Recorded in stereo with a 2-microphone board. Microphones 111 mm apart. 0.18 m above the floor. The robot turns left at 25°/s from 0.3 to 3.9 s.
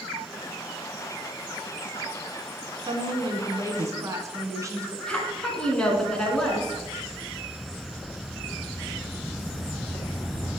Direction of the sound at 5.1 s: 10° left (ahead or behind).